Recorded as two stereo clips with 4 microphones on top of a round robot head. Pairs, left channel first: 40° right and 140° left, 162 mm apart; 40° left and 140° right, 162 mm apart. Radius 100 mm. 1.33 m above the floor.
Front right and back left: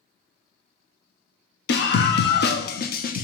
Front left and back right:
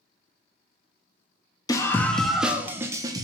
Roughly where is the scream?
Ahead right.